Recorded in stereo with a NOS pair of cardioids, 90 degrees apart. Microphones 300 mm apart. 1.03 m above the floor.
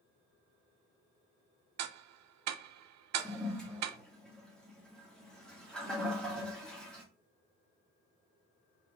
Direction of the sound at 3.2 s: 5° left.